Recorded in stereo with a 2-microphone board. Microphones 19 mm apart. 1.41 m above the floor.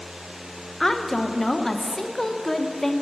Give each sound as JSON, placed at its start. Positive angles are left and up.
{"t": 0.8, "sound": "a woman speaking", "side_deg": 15, "distance_m": 0.6}